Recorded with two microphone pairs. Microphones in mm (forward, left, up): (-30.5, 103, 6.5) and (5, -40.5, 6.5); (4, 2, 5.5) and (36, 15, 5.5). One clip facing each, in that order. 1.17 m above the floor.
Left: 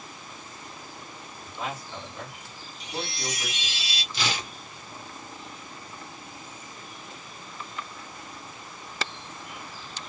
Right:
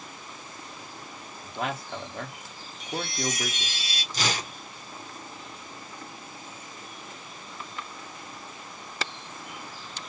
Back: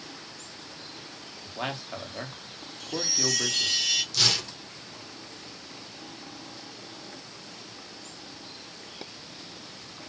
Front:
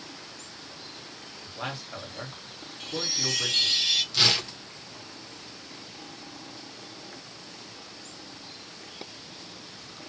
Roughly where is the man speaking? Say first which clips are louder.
Right 3 dB, back 2 dB; right.